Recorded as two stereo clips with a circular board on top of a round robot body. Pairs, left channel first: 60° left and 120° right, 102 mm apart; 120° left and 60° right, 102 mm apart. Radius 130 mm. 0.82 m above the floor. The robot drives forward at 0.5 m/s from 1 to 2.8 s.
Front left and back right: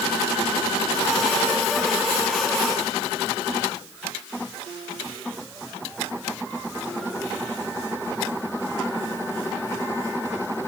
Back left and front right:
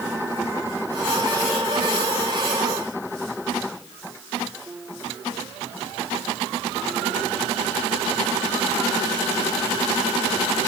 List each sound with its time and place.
Only background noise.